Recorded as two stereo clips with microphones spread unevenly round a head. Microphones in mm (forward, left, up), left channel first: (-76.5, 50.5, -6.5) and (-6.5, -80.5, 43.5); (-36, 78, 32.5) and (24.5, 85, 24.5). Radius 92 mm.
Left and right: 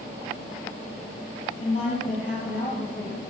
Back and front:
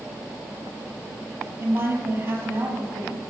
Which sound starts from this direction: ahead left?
A woman speaking, at 1.6 s.